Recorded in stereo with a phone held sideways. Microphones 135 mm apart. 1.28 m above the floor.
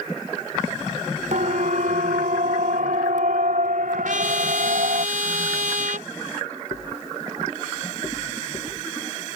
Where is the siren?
70° right (ahead or behind); by 5.0 s 80° right.